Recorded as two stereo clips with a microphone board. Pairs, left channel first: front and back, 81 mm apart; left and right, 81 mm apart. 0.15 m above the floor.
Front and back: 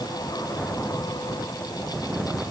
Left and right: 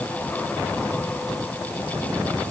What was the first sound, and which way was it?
Only background noise.